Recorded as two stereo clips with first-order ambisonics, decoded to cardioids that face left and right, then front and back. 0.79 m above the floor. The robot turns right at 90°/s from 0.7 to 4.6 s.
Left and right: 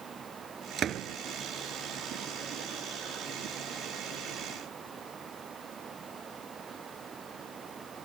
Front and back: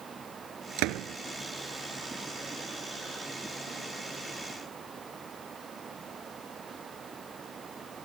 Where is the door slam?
155° right; by 1.2 s 125° right.